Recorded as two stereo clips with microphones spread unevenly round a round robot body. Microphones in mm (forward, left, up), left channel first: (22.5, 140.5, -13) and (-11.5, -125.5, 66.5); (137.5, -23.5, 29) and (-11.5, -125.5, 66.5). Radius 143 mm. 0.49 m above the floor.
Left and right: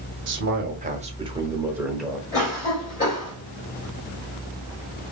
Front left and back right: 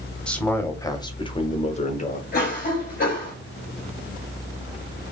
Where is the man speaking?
45° right, 1.3 m; by 2.2 s 5° left, 1.5 m.